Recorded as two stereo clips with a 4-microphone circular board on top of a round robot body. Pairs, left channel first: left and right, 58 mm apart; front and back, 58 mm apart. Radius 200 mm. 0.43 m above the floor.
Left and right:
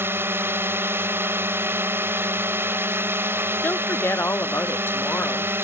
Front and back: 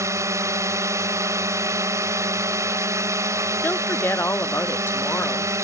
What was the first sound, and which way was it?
A drone, 145° right.